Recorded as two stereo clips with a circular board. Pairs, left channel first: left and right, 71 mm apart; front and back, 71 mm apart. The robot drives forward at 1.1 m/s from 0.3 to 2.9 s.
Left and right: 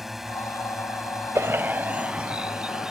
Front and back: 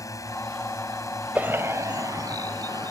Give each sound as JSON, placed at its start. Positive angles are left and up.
{"t": 0.0, "sound": "a drone", "azimuth_deg": -5}
{"t": 1.4, "sound": "a bird", "azimuth_deg": -115}